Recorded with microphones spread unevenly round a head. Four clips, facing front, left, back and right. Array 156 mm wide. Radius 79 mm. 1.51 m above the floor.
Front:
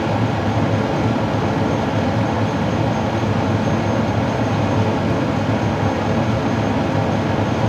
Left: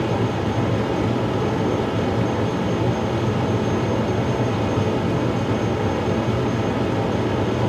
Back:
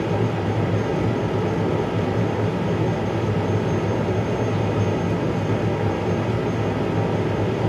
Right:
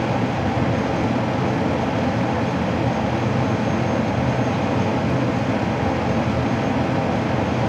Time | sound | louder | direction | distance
0.0 | a fan | even, front 3 dB | 30° right | 1.1 m